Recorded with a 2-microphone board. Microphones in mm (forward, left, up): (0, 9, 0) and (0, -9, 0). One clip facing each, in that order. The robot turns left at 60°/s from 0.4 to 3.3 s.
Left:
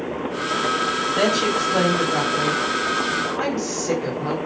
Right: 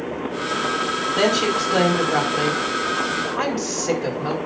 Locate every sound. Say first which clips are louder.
1.2 s a woman speaking: right 1 dB; 25° right (ahead or behind), 5 m